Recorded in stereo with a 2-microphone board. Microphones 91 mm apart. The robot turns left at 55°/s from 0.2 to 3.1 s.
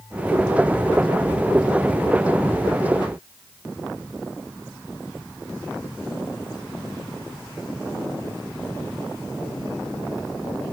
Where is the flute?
I don't hear a flute.